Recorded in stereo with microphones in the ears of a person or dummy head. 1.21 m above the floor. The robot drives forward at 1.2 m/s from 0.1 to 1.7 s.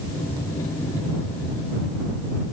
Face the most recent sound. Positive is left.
No sound to turn to.